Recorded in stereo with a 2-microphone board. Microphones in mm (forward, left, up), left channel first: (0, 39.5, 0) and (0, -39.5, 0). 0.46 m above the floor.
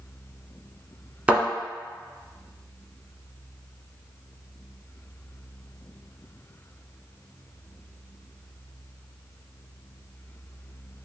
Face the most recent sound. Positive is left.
turn(degrees=-15)  # may be behind; listen again after turning